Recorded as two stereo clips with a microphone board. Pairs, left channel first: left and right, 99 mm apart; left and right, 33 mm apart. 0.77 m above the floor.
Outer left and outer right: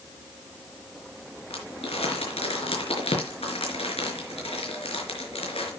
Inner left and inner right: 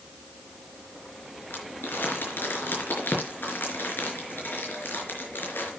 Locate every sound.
1.5 s crumpling: 75° left (ahead or behind), 4.5 m